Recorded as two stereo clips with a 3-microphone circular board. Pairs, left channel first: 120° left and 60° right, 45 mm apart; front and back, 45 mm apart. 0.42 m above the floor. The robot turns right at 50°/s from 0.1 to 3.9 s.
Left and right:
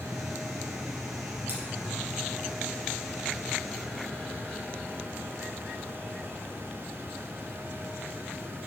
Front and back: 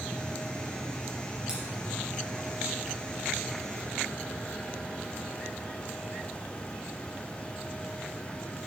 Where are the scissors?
110° right, 3.5 m; by 1.6 s 100° right, 3.5 m.